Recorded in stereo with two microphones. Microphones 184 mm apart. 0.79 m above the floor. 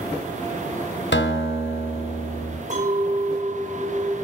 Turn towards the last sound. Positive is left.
turn(degrees=-40)  # may be behind; listen again after turning